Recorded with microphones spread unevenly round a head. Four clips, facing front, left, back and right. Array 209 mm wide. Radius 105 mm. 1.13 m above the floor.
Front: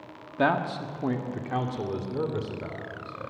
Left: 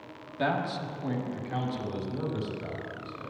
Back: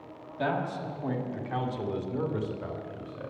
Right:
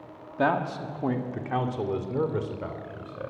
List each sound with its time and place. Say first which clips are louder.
0.4 s a man speaking: right 4 dB, front 5 dB; 30° right, 1.8 m; by 3.3 s 60° right, 4 m